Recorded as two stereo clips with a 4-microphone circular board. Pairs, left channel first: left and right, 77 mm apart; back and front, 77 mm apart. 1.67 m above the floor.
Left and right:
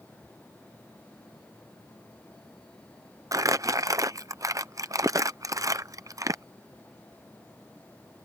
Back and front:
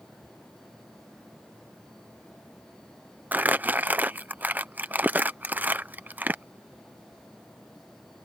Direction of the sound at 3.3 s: 60° right.